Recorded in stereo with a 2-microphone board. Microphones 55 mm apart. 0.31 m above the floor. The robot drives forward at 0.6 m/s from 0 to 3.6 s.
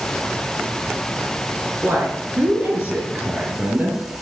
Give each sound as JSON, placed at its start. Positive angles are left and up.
{"t": 1.8, "sound": "a woman speaking", "side_deg": -30, "distance_m": 4.0}